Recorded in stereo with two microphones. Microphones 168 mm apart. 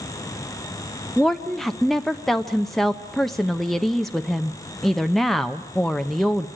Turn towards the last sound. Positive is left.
turn(degrees=0)  # may be behind; listen again after turning